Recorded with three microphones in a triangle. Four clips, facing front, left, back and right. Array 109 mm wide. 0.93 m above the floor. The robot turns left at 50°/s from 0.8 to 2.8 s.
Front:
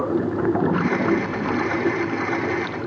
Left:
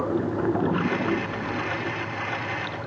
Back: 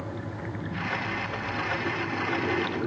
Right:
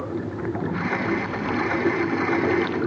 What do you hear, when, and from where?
0.0 s running water: 15° left; by 2.9 s 85° right